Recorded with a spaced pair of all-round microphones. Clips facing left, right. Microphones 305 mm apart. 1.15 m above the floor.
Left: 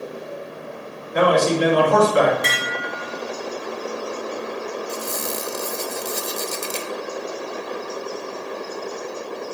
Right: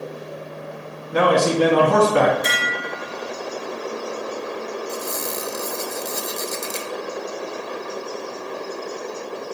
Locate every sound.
1.1 s a man speaking: 75° right (ahead or behind), 1.9 m
2.4 s dishes clattering: 80° left, 1.4 m
4.9 s a squeak: 40° left (ahead or behind), 0.6 m